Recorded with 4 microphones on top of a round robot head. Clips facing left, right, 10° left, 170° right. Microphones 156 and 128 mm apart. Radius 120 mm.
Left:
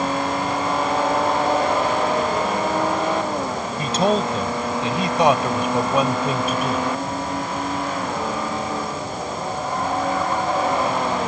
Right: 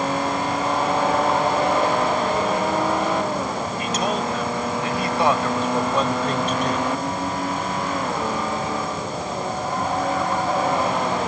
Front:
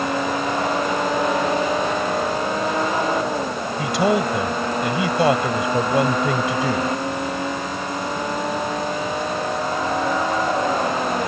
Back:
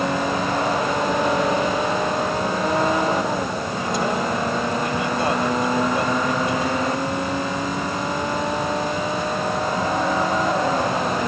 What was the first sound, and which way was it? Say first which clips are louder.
A man speaking: left 6 dB, front 5 dB; 30° left.